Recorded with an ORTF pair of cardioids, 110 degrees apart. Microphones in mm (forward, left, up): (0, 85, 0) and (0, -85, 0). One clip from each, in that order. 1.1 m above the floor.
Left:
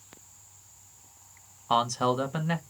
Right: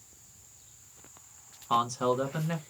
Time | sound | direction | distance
1.7 | a man speaking | 30° left | 0.9 m